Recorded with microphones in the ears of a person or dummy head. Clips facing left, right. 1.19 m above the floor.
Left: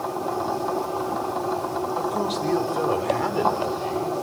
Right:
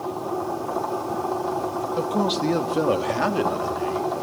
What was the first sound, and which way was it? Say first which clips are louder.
A man speaking: right 6 dB; 60° right (ahead or behind).